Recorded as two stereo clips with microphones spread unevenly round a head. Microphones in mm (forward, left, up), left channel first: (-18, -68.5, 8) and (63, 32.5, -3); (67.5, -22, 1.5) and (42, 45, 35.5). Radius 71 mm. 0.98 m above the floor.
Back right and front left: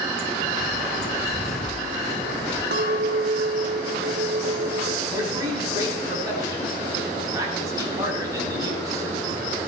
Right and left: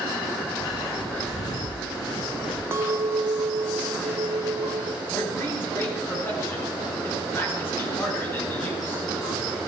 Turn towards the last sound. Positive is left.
turn(degrees=-10)